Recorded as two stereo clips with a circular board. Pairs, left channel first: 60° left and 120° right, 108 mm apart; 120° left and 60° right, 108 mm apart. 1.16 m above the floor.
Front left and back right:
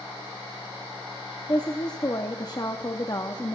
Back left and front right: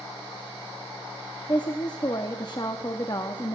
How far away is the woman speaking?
About 0.6 m.